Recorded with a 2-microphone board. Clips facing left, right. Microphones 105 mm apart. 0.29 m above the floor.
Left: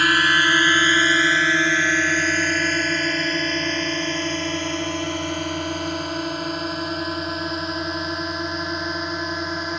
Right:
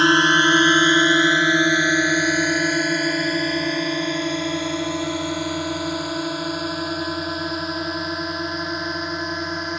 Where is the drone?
25° right (ahead or behind); by 9.8 s centre (ahead or behind).